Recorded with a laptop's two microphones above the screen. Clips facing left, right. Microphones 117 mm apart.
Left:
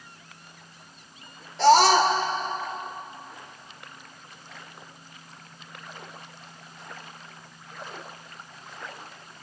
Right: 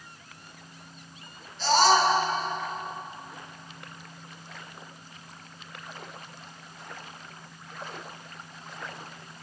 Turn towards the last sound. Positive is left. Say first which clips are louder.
# left 4 dB
turn(degrees=80)